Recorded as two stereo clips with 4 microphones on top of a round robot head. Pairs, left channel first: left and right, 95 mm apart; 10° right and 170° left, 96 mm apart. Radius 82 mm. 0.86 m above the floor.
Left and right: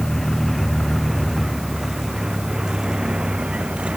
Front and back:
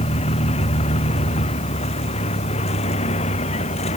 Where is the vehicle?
Straight ahead; by 4.0 s 10° right.